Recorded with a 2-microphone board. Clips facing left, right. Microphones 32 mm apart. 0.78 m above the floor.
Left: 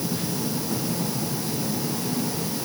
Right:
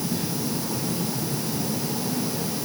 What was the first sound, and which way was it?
Only background noise.